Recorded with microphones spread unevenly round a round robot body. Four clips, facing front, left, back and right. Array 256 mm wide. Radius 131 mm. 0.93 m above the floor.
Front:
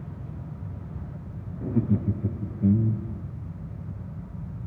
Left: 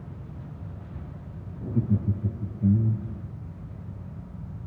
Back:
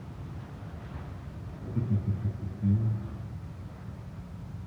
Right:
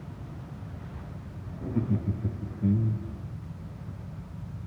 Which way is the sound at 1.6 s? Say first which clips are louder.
Left 2 dB, front 8 dB; 10° right.